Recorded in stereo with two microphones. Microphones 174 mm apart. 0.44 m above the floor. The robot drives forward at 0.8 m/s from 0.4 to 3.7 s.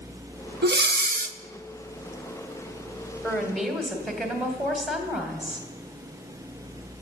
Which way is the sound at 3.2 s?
Centre (ahead or behind).